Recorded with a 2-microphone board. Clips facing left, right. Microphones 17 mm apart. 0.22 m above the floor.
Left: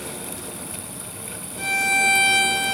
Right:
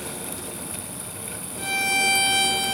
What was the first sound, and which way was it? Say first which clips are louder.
A violin: left 3 dB; 25° left (ahead or behind).